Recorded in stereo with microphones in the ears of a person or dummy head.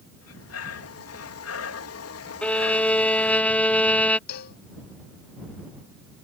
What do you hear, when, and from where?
0.2 s breathing: 85° left
2.4 s a violin: 10° left (ahead or behind)
4.3 s a cowbell: 50° left (ahead or behind)